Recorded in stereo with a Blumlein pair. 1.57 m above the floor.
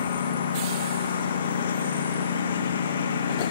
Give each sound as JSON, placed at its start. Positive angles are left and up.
{"t": 0.0, "sound": "a lawn mower", "azimuth_deg": 65}